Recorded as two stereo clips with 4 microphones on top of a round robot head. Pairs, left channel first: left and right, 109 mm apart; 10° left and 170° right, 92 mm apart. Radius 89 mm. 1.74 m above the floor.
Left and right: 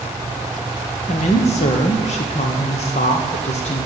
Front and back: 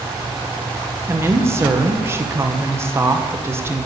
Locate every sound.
1.1 s a woman speaking: 125° left, 1.2 m